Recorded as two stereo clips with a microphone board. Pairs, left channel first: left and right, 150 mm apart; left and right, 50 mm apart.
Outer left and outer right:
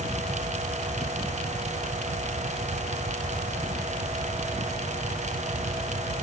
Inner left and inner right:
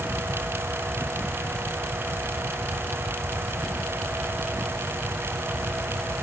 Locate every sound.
Only background noise.